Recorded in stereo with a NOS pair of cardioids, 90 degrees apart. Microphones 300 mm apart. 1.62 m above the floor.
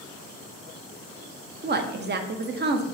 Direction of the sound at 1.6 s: 35° right.